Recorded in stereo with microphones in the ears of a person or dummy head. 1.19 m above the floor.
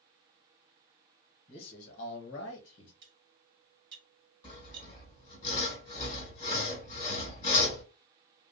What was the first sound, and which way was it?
A man speaking, 35° left (ahead or behind).